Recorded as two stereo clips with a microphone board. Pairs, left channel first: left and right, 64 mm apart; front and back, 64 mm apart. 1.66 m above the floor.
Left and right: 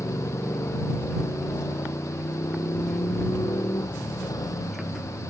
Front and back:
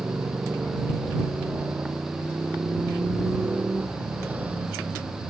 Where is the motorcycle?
120° left; by 5.3 s 110° left.